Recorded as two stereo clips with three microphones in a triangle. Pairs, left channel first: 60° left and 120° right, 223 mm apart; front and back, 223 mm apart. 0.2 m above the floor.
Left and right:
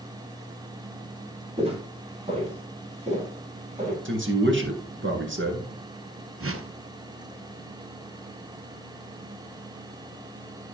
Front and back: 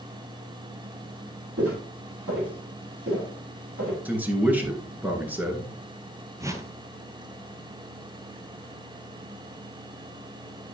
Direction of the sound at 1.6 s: 175° left.